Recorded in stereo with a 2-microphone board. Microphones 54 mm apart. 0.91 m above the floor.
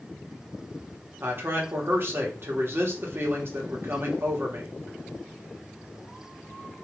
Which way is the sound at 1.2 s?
50° right (ahead or behind).